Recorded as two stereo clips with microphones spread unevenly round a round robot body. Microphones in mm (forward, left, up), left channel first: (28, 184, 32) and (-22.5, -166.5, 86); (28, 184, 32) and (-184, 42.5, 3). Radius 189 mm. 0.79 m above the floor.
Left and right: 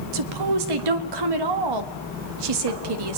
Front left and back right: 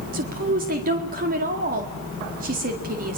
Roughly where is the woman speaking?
Right.